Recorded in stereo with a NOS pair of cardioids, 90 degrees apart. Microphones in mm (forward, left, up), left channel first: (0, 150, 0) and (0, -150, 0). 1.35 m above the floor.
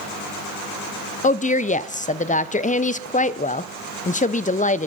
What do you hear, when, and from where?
1.2 s a woman speaking: 25° left, 0.6 m